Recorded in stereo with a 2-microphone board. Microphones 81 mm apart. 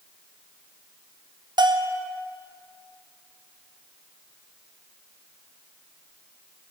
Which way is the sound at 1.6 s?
65° right (ahead or behind).